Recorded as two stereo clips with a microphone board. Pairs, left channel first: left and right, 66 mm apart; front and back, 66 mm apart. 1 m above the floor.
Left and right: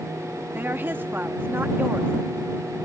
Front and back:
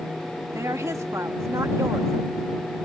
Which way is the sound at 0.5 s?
145° right.